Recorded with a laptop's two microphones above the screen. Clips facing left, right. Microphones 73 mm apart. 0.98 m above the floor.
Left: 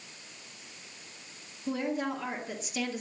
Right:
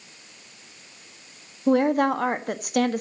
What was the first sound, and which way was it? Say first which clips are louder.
A woman speaking: right 12 dB; 60° right (ahead or behind).